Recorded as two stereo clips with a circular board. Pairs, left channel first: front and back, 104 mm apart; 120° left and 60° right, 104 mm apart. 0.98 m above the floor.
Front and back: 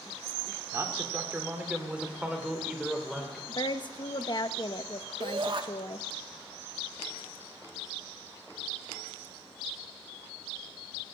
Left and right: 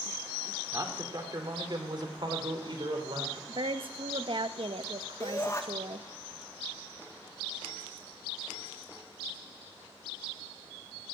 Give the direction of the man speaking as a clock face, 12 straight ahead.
4 o'clock.